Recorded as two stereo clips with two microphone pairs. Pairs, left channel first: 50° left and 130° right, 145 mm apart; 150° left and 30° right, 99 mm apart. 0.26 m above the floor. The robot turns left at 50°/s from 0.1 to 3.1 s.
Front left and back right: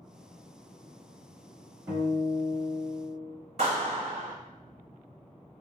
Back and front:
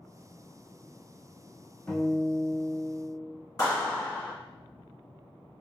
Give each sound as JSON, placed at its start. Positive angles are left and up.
{"t": 1.9, "sound": "a guitar", "azimuth_deg": -155, "distance_m": 1.4}
{"t": 3.6, "sound": "a clap", "azimuth_deg": -165, "distance_m": 1.8}